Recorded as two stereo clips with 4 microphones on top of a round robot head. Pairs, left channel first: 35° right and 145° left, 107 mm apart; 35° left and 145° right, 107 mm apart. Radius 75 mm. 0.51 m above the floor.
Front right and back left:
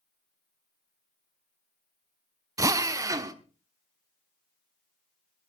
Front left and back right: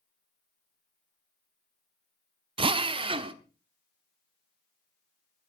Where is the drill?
165° right, 1.0 m.